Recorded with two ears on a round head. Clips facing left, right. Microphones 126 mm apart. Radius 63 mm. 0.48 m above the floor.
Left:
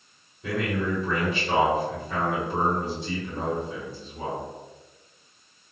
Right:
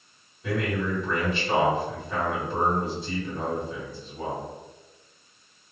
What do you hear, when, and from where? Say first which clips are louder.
0.4 s a man speaking: even; 55° left (ahead or behind), 1.9 m